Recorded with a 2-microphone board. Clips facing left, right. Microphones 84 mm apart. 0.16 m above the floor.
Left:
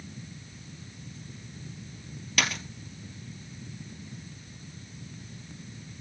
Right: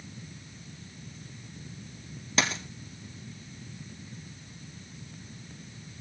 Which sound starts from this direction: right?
A dropped coin, at 2.4 s.